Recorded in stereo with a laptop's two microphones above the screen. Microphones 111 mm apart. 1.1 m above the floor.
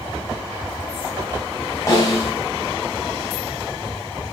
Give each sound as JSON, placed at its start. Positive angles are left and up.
{"t": 1.9, "sound": "a snare drum", "side_deg": 30, "distance_m": 3.0}